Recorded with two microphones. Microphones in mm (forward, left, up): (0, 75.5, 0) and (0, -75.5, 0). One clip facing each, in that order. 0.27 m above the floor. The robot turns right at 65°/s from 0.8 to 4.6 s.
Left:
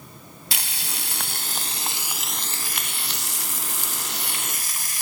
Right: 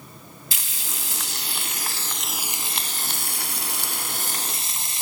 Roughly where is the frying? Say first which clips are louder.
Left 5 dB; left.